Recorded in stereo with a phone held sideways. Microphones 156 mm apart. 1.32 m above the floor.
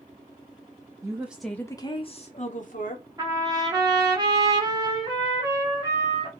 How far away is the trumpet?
About 0.8 m.